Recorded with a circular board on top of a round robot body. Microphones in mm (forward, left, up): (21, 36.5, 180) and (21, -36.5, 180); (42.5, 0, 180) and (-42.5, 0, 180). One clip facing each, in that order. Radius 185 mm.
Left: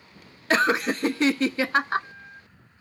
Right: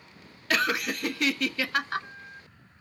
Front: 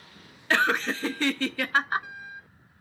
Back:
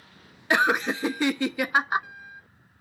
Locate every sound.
0.5 s laughter: 115° left, 0.7 m